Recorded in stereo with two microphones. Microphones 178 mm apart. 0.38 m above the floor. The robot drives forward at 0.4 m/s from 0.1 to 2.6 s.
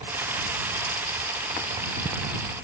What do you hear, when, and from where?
Only background noise.